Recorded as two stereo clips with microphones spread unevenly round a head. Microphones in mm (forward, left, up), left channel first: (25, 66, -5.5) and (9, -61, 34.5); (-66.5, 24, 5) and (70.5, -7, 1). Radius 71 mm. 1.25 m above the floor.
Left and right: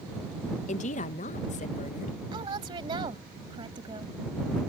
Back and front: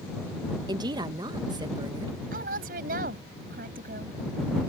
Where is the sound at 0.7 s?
50° left.